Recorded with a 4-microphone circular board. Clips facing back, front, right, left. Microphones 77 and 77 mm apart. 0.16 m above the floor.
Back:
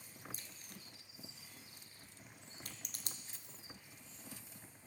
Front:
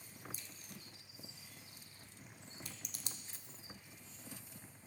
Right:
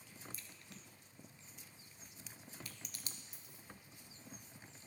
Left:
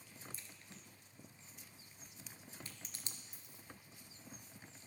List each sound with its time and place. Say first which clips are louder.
0.3 s a crack: front 1 dB, right 1 dB; 150° left, 0.7 m
3.3 s a dropped coin: front 1 dB, even; 175° right, 1.5 m